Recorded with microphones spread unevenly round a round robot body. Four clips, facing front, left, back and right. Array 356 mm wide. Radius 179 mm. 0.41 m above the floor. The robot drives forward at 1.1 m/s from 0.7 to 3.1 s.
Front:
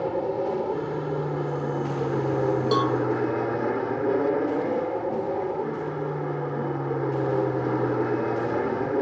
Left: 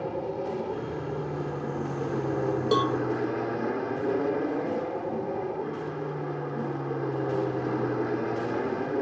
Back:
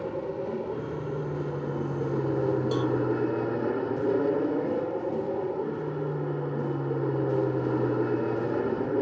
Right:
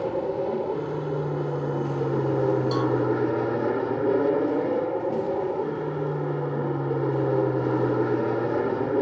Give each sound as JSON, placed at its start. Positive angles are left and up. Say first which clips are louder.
{"t": 0.0, "sound": "an aircraft", "louder": "right 5 dB, front 6 dB", "azimuth_deg": -50}
{"t": 2.7, "sound": "a cowbell", "louder": "right 1 dB, front 4 dB", "azimuth_deg": 40}